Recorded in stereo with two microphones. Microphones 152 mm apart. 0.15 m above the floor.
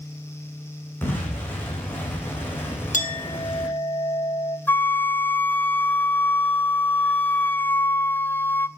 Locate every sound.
1.0 s an explosion: 15° left (ahead or behind), 8.5 m
2.9 s a clink: 60° left (ahead or behind), 2.5 m
4.7 s a flute: 15° left (ahead or behind), 0.5 m